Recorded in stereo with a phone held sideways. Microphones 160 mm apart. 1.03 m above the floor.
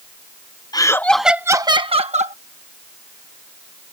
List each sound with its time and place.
0.7 s laughter: 25° left (ahead or behind); by 2.4 s 50° right (ahead or behind)